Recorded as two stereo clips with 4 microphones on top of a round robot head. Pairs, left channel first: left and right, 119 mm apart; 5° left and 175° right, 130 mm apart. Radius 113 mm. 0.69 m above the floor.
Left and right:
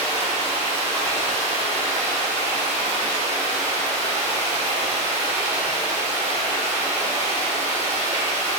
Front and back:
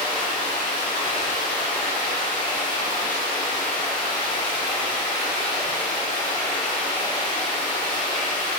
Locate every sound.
0.0 s running water: 80° right, 1.5 m